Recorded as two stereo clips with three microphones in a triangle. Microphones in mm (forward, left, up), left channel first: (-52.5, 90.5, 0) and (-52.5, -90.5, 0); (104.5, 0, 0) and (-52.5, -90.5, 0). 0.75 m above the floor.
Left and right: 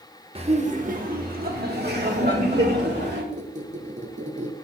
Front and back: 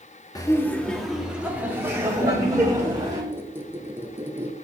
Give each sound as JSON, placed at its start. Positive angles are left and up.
{"t": 0.3, "sound": "laughter", "azimuth_deg": -40, "distance_m": 1.0}
{"t": 3.3, "sound": "a squeak", "azimuth_deg": -80, "distance_m": 0.8}